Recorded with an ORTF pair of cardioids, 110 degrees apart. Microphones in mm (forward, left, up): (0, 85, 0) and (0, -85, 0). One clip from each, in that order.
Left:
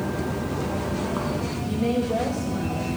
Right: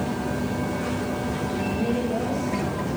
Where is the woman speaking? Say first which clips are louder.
Left 4 dB; 20° left, 10 m.